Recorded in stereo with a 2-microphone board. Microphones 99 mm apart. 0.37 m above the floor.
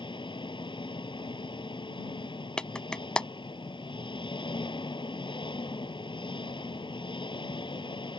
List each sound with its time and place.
0.0 s an engine running: 55° left (ahead or behind)
2.6 s a clap: 10° left (ahead or behind)